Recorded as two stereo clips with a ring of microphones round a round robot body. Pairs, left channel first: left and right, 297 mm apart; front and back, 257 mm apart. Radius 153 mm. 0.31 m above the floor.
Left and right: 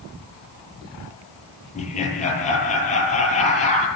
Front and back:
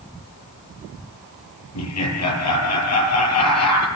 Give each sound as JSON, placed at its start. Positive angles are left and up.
{"t": 1.8, "sound": "laughter", "azimuth_deg": 20, "distance_m": 9.5}